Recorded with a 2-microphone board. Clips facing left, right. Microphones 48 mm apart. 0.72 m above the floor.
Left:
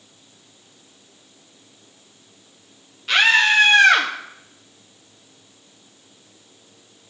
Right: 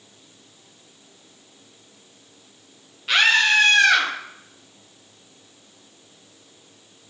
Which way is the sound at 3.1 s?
5° right (ahead or behind).